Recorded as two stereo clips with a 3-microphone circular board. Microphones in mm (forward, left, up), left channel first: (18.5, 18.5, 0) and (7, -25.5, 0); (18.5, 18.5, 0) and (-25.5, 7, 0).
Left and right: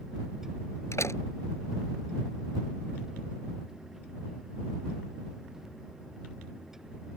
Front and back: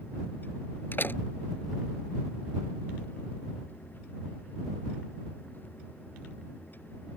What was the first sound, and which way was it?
A door slam, 60° left.